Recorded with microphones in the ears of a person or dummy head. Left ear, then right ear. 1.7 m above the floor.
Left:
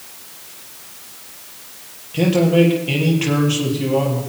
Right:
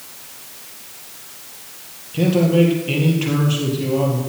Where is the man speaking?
20° left (ahead or behind), 3.5 m.